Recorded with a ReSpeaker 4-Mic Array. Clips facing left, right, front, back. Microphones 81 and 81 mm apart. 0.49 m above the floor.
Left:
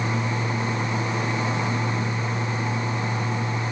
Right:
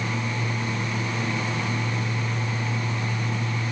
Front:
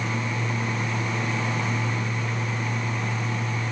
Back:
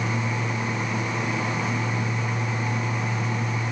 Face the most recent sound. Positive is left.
No sound to turn to.